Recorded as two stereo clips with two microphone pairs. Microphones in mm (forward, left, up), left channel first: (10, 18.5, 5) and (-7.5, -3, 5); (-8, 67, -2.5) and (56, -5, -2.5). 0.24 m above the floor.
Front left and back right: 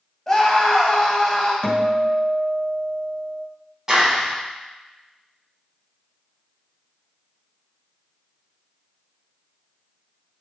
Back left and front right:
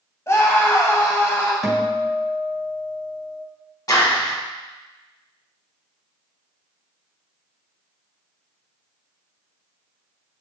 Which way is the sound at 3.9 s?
170° left.